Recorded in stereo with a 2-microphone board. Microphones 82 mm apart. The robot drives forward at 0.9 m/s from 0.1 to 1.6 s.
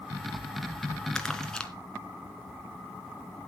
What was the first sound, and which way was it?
Crumpling, 10° left (ahead or behind).